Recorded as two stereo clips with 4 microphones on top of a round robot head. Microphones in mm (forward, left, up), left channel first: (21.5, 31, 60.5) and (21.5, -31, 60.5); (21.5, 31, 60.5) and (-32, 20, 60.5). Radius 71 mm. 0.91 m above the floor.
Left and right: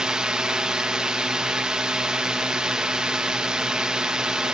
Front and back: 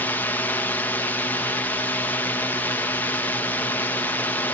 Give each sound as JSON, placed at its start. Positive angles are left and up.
{"t": 0.0, "sound": "a drone", "azimuth_deg": -15}